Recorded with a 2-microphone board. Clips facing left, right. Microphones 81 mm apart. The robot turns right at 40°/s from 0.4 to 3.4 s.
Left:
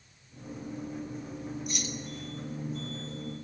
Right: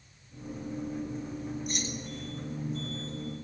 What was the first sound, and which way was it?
Keys jangling, 40° right (ahead or behind).